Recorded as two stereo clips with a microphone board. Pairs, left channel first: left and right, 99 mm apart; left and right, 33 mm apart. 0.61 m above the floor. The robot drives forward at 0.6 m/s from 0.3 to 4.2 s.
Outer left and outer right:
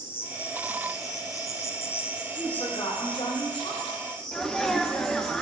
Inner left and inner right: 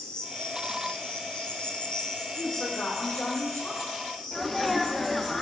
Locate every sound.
0.0 s an insect: 25° left (ahead or behind), 0.8 m; by 5.4 s 10° left (ahead or behind), 1.9 m
2.3 s a woman speaking: 70° left (ahead or behind), 2.5 m; by 3.9 s 65° left (ahead or behind), 2.5 m
4.3 s a sneeze: 5° left (ahead or behind), 0.6 m